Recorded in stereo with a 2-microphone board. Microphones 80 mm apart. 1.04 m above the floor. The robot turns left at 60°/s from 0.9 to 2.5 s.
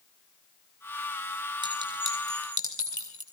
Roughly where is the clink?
Right.